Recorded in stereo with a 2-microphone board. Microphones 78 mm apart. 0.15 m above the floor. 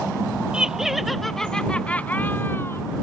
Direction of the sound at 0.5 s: 10° right (ahead or behind).